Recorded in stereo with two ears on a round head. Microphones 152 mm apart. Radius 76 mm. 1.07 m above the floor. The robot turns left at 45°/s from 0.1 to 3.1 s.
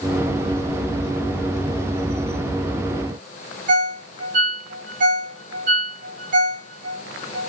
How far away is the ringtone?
About 1.1 m.